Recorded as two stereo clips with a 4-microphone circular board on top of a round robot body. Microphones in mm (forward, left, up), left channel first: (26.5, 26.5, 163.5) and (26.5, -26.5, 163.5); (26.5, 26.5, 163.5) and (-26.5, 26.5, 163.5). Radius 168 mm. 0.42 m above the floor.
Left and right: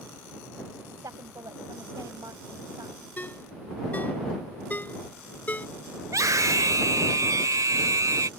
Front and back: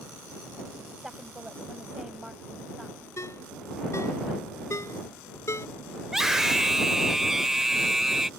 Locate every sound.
0.9 s a woman speaking: 100° right
3.2 s a ringtone: 30° left
6.0 s a scream: 95° right